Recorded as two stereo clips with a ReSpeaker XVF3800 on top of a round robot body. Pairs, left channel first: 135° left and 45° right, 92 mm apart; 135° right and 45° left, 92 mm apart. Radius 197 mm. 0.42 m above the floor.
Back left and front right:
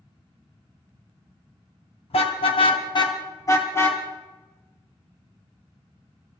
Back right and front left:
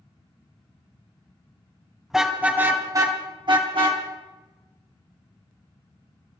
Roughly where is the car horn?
Behind left.